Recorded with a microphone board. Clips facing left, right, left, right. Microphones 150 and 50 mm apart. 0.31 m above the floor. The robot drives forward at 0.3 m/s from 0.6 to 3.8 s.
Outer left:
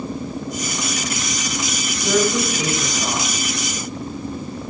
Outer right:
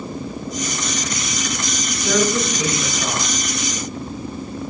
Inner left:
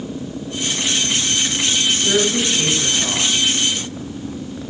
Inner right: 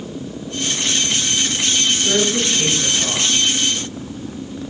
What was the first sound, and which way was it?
A woman speaking, 10° left (ahead or behind).